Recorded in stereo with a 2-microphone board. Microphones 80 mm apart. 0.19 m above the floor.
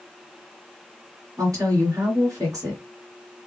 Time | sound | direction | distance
1.4 | a woman speaking | 45° right (ahead or behind) | 2.5 m